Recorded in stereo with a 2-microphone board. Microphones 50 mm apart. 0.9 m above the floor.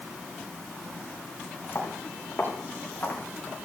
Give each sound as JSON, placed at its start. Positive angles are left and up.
{"t": 1.8, "sound": "footsteps", "side_deg": 50, "distance_m": 7.5}